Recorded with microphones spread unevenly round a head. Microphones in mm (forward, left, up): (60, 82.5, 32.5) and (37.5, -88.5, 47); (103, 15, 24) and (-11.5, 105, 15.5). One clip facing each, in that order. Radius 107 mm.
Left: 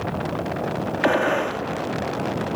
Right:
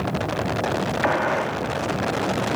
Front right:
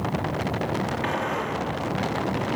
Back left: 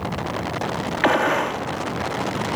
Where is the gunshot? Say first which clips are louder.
Left 5 dB, back left 7 dB; 140° left, 1.7 m.